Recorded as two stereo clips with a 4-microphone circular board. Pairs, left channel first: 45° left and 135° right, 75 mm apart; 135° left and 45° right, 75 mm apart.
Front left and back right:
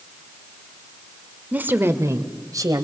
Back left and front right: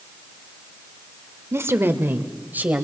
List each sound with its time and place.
1.5 s a woman speaking: 75° right, 1.2 m; by 2.8 s 110° right, 1.9 m